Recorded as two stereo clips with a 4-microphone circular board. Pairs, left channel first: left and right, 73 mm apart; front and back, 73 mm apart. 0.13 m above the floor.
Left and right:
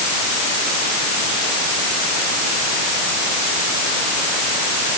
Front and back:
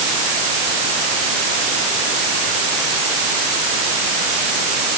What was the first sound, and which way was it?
Only background noise.